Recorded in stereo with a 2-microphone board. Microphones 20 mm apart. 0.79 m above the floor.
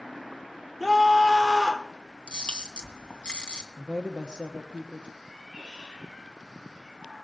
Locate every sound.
0.8 s a scream: centre (ahead or behind), 2 m
2.3 s a camera shutter: 80° left, 2.5 m
3.8 s a woman speaking: 55° right (ahead or behind), 1.1 m
5.2 s a cat meowing: 20° right (ahead or behind), 6.5 m